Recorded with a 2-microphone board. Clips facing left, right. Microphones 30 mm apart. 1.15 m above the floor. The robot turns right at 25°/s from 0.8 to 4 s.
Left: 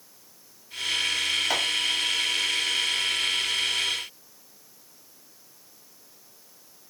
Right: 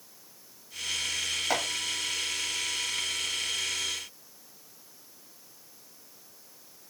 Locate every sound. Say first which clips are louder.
1.5 s chopping: right 1 dB; 5° right (ahead or behind), 1.0 m; by 1.6 s 10° right (ahead or behind), 1.0 m